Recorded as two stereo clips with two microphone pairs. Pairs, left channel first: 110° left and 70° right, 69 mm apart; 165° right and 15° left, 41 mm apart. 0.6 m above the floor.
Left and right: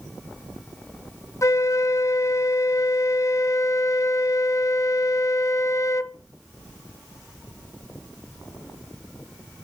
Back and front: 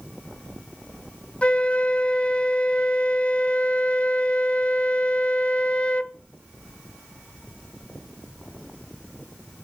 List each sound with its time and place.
1.4 s a flute: 140° left, 0.6 m